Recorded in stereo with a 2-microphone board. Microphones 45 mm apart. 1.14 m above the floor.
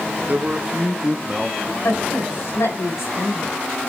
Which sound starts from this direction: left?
A woman speaking, at 1.8 s.